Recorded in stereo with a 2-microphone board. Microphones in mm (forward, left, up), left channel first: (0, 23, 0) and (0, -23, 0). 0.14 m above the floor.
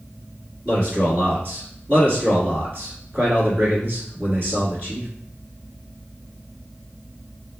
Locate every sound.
0.7 s a man speaking: 45° right (ahead or behind), 1.6 m